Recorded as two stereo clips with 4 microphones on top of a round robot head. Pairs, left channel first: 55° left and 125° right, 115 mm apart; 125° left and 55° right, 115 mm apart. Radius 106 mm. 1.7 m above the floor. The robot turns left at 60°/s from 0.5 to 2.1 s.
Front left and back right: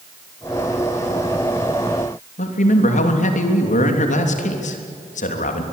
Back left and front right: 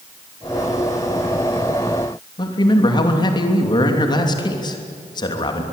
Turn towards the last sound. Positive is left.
turn(degrees=70)